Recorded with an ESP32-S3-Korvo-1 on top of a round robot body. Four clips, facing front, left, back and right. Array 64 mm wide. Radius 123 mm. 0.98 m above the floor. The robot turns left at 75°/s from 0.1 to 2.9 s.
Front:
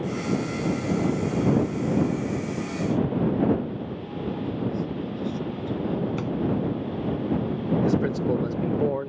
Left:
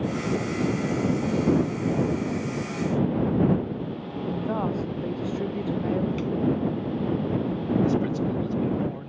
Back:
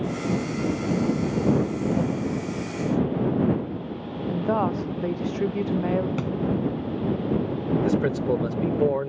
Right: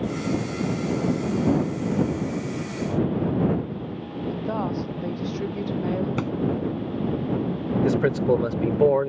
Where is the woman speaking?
Straight behind.